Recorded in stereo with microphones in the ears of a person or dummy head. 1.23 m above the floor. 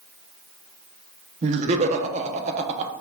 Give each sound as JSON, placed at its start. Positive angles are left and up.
{"t": 1.4, "sound": "laughter", "side_deg": -40, "distance_m": 0.7}